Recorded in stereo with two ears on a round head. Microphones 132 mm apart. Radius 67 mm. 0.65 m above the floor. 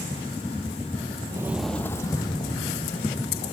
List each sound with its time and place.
1.3 s footsteps: 25° right (ahead or behind), 0.7 m; by 3.5 s 45° left (ahead or behind), 2.5 m